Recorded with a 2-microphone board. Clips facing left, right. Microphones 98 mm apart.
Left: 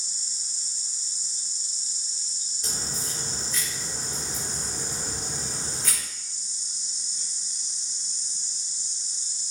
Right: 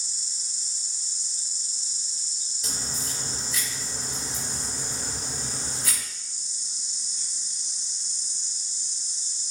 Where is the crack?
5° right (ahead or behind), 1.9 m.